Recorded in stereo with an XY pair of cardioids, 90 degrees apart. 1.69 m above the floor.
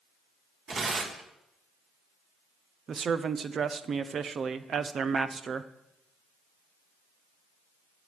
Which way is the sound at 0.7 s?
45° right.